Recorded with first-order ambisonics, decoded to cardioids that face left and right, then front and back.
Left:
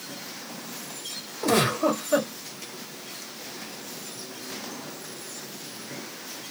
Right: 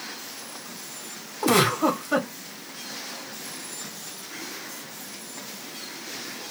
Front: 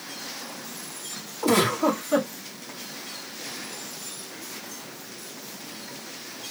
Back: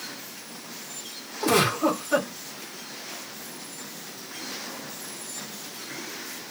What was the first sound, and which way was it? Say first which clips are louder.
A giggle: right 2 dB, even; 90° right.